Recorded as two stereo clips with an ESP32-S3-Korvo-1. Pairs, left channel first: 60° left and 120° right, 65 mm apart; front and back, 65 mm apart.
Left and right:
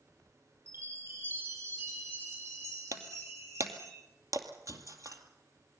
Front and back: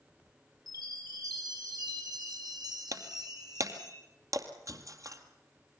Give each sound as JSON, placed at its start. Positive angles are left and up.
{"t": 0.7, "sound": "a chime", "azimuth_deg": -170, "distance_m": 6.0}
{"t": 2.9, "sound": "breaking glass", "azimuth_deg": -150, "distance_m": 2.0}